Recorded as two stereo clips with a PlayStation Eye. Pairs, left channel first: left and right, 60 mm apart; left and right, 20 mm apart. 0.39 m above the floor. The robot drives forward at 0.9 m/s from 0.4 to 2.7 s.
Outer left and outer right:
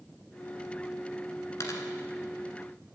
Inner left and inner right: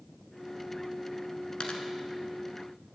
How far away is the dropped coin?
About 1.4 m.